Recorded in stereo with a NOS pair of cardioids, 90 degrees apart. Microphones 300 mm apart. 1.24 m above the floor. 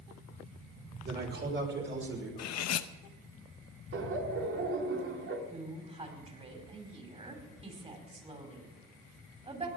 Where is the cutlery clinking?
65° left, 0.9 m.